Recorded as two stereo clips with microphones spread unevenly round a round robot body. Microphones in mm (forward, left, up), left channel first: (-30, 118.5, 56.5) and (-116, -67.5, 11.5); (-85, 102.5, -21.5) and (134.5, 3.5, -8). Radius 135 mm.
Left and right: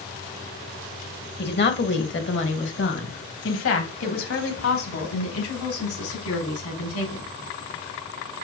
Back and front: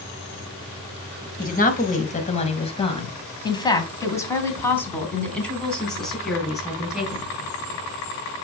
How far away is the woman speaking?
About 2.5 m.